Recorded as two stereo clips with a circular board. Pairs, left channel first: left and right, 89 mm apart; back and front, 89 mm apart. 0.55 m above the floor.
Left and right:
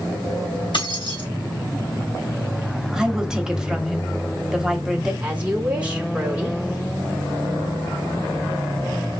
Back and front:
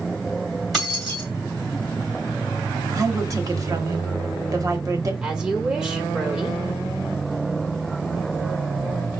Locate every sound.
0.7 s keys jangling: 90° left, 2.5 m
2.9 s a woman speaking: 10° right, 1.0 m
5.2 s a woman speaking: 50° right, 1.2 m